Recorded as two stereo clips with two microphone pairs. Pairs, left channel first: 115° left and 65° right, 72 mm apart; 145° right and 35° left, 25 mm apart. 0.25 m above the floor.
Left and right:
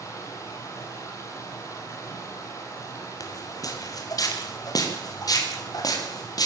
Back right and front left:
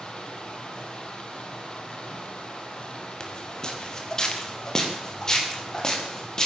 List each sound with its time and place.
0.0 s running water: 160° left, 6.5 m
3.2 s footsteps: 155° left, 4 m; by 6.5 s 150° left, 7.5 m